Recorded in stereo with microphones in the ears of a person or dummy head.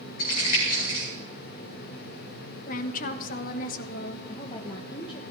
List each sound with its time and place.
0.2 s crumpling: 50° left (ahead or behind), 9 m
2.7 s a woman speaking: 50° left (ahead or behind), 1.3 m
4.3 s a woman speaking: 30° left (ahead or behind), 1.1 m